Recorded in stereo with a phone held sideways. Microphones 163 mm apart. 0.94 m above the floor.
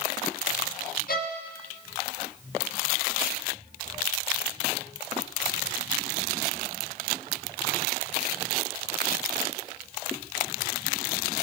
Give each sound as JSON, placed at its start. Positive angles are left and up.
{"t": 1.1, "sound": "a violin", "side_deg": 65, "distance_m": 1.1}